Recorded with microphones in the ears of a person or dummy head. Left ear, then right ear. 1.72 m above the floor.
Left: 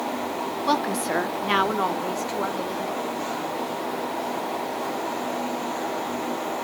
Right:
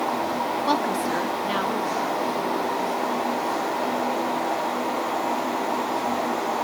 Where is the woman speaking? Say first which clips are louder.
Left 2 dB; 5° right (ahead or behind), 0.8 m; by 3.2 s 50° left (ahead or behind), 3 m.